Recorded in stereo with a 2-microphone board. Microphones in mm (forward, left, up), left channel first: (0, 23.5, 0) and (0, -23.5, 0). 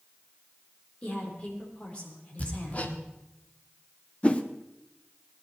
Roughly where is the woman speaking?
Left.